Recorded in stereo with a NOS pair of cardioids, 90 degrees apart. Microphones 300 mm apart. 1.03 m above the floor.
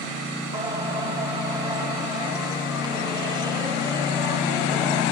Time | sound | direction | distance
0.5 | singing | 15° right | 4 m